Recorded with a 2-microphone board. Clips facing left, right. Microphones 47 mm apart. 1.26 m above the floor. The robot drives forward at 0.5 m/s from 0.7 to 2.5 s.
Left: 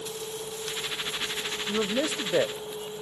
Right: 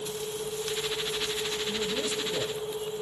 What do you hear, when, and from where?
1.7 s a man speaking: 55° left (ahead or behind), 0.7 m; by 2.5 s 75° left (ahead or behind), 0.6 m